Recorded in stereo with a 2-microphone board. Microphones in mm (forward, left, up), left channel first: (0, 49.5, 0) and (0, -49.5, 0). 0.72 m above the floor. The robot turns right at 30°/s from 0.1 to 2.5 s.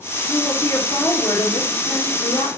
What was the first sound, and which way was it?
A woman speaking, 25° left.